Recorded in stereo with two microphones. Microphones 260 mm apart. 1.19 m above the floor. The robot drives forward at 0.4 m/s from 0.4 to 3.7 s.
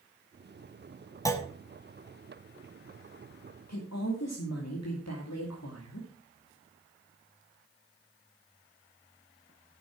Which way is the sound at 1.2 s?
10° left (ahead or behind).